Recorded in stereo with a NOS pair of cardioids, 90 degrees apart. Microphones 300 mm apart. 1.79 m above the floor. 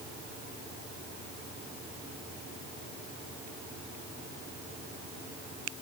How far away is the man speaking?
I don't hear a man speaking.